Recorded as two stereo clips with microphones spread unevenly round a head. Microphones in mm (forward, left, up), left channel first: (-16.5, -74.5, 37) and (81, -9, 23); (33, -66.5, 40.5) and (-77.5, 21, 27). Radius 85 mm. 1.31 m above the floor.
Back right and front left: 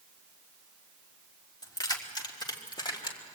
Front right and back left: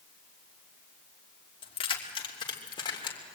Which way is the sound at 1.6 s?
90° right.